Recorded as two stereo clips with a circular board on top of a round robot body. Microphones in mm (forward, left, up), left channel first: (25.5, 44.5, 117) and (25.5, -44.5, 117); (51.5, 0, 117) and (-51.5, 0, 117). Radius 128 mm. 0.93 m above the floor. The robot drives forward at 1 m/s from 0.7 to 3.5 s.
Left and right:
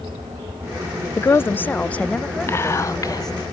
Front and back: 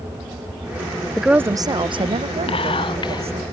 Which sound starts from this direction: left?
A woman speaking, at 1.2 s.